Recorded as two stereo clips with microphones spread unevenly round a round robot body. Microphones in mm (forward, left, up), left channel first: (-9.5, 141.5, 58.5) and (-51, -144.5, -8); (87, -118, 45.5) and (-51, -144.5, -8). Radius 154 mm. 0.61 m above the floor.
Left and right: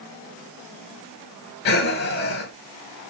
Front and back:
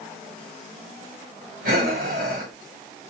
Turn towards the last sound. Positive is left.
turn(degrees=135)